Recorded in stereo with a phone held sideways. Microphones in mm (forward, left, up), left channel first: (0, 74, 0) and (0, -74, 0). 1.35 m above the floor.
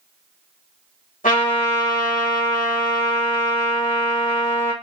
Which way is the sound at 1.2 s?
70° left (ahead or behind).